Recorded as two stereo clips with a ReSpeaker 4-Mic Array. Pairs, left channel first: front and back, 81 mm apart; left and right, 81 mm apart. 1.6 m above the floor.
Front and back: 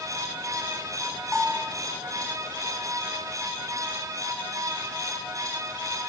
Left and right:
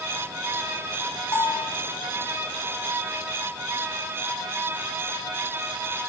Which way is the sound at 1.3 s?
75° left.